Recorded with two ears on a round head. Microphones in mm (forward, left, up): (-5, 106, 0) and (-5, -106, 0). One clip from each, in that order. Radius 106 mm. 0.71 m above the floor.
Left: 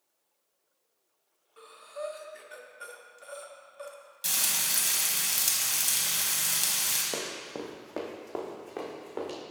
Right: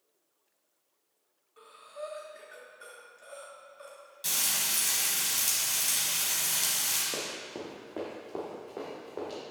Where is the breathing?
20° left (ahead or behind), 0.7 m.